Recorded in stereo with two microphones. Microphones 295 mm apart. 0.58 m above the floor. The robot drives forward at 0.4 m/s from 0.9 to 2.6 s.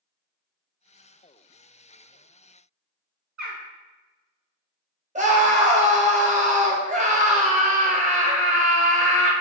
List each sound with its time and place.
3.4 s a bird: 75° right (ahead or behind), 0.7 m
5.2 s a scream: 25° right (ahead or behind), 0.6 m